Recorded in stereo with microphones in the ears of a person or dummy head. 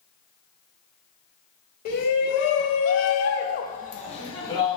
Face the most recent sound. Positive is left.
turn(degrees=20)  # may be behind; listen again after turning